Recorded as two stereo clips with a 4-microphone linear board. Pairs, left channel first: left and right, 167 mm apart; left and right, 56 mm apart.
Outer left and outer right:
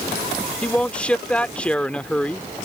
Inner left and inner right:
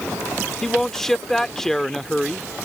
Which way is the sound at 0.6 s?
5° left (ahead or behind).